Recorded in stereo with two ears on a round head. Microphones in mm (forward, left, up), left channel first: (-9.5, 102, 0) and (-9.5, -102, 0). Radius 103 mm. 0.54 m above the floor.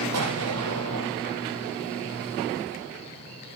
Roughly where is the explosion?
Right.